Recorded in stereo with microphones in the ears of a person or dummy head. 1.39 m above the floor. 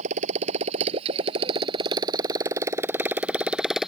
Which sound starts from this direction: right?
A motorcycle, at 0.0 s.